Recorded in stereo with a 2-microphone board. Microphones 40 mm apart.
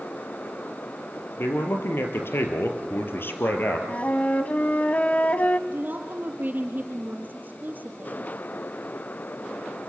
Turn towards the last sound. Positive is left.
turn(degrees=-45)  # may be behind; listen again after turning